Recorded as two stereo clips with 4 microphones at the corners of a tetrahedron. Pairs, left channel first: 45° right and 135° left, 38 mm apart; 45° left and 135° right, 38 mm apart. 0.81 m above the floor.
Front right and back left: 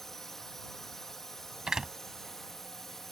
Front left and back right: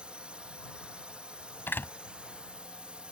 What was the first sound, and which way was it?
A drone, 115° right.